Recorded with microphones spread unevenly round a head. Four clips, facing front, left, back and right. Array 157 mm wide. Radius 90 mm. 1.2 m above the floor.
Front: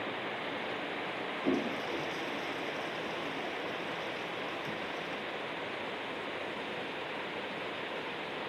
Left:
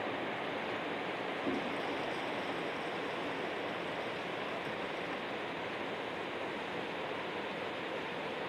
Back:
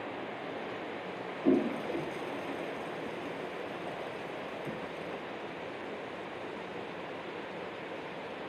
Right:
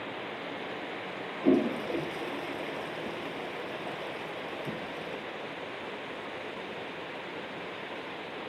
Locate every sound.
1.4 s a toilet flushing: 140° right